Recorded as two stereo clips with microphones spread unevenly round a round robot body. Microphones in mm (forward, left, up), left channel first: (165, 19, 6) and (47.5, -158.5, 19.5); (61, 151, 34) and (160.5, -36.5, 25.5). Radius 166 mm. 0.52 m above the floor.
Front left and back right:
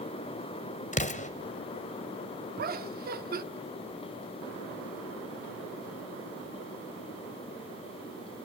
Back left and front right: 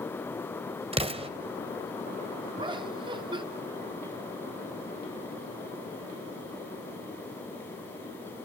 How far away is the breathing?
I don't hear breathing.